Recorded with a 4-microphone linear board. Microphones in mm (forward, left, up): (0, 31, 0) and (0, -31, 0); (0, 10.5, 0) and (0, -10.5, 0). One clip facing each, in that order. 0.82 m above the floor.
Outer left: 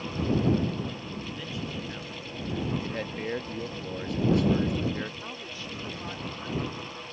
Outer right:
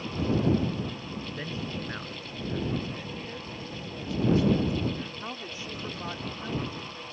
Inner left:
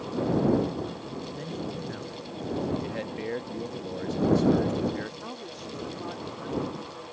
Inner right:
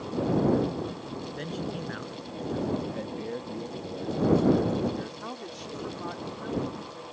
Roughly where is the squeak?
I don't hear a squeak.